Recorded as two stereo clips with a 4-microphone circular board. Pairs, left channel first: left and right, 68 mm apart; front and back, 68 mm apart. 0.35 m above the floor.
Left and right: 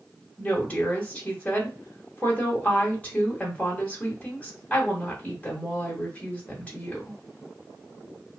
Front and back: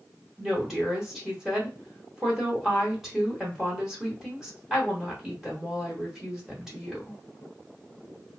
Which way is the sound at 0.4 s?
105° left.